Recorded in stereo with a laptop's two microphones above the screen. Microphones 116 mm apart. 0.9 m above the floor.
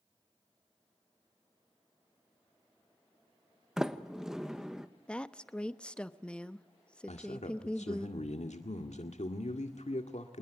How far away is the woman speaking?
About 1.0 m.